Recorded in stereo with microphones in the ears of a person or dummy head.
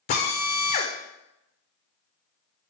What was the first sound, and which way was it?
A drill, 35° left (ahead or behind).